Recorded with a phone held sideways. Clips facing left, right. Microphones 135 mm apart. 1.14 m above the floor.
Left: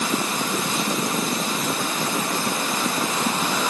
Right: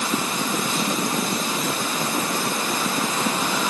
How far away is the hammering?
I don't hear hammering.